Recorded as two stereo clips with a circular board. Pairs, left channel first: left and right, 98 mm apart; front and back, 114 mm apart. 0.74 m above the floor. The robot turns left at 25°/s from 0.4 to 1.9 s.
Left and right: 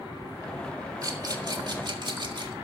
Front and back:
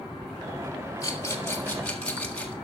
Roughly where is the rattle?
Ahead right.